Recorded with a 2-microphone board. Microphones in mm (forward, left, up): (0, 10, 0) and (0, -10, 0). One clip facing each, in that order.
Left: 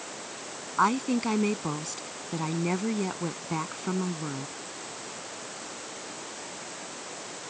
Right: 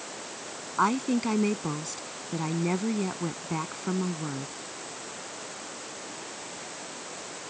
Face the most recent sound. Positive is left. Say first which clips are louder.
# even
turn(degrees=5)  # may be behind; listen again after turning